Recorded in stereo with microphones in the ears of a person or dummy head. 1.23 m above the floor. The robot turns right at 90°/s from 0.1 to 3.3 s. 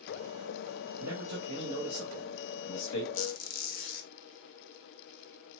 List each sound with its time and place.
1.0 s a man speaking: 85° right, 1.1 m; by 3.0 s 100° left, 1.1 m
3.1 s a squeak: 85° left, 1.0 m; by 4.1 s 75° left (ahead or behind), 1.0 m